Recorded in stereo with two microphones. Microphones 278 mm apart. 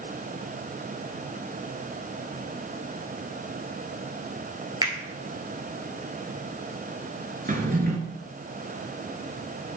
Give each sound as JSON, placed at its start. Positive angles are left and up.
{"t": 4.8, "sound": "a finger snap", "side_deg": -15, "distance_m": 1.4}
{"t": 7.5, "sound": "a drawer", "side_deg": -30, "distance_m": 1.0}